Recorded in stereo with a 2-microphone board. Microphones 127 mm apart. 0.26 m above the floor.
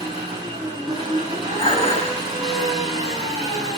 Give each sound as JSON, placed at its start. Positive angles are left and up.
{"t": 0.0, "sound": "an engine running", "side_deg": -40, "distance_m": 4.0}
{"t": 1.6, "sound": "dishes clattering", "side_deg": 50, "distance_m": 1.3}